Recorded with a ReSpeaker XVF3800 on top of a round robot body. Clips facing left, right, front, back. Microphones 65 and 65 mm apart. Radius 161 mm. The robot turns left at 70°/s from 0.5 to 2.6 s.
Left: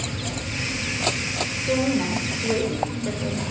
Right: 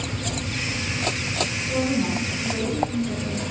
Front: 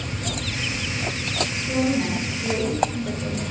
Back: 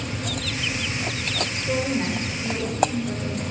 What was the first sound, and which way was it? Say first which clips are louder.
A woman speaking: left 2 dB, front 2 dB; 130° left.